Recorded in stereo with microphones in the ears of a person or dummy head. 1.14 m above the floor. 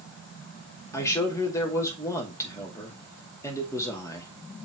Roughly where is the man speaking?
Left.